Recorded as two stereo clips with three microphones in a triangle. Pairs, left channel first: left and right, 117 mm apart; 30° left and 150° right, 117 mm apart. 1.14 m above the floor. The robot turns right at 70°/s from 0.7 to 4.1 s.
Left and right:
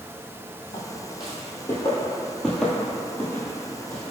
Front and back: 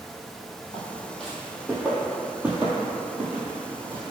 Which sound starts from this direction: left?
Footsteps, at 0.7 s.